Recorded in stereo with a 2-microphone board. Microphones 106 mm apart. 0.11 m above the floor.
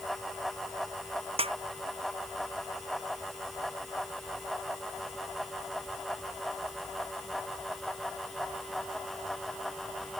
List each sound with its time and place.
1.4 s a snare drum: 65° right (ahead or behind)